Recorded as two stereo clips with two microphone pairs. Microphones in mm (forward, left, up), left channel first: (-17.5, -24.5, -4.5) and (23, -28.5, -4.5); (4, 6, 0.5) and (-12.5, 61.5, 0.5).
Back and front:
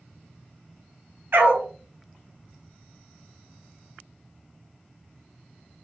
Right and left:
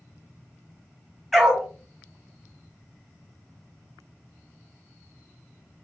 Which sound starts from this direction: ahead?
A dog barking, at 1.3 s.